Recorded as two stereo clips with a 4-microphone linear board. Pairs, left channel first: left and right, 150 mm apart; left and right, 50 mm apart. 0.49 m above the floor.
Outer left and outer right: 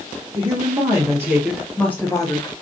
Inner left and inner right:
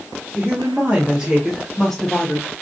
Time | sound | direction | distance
0.3 | a woman speaking | 40° right (ahead or behind) | 1.1 m